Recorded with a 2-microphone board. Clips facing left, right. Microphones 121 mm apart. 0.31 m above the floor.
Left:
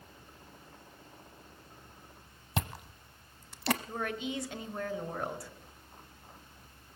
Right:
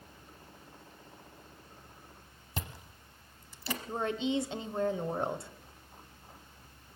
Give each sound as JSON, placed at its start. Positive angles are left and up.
{"t": 2.6, "sound": "chewing", "side_deg": 65, "distance_m": 0.8}
{"t": 3.9, "sound": "a woman speaking", "side_deg": -25, "distance_m": 1.1}